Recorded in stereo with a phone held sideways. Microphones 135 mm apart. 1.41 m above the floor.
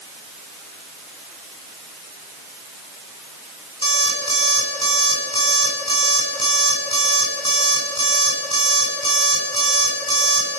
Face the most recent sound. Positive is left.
turn(degrees=45)  # may be behind; listen again after turning